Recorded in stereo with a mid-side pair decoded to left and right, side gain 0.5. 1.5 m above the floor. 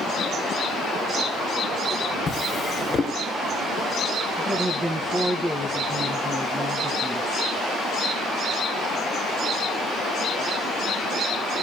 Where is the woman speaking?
15° right, 1.8 m.